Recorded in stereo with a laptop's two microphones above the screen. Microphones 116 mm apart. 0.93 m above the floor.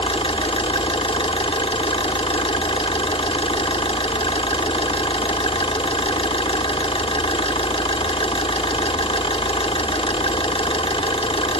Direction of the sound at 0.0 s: 50° left (ahead or behind).